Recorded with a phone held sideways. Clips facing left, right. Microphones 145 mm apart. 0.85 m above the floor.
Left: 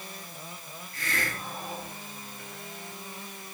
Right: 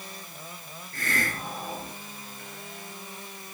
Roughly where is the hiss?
Right.